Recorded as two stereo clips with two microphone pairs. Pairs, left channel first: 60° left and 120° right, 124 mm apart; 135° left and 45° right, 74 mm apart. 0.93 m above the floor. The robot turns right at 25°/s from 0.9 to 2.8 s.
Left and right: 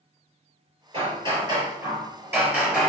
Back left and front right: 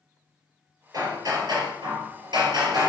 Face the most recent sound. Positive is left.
turn(degrees=-35)